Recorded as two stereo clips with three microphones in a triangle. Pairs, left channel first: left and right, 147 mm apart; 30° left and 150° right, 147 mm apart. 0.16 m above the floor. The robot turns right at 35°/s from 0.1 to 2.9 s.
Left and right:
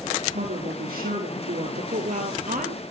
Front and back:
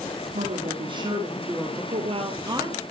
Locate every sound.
0.3 s a woman speaking: 115° right, 6 m; by 1.8 s 65° right, 6 m
1.9 s a woman speaking: 115° right, 3 m; by 2.8 s 85° right, 3 m